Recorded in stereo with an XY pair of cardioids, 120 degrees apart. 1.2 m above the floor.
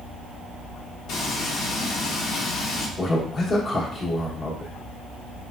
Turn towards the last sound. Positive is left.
turn(degrees=35)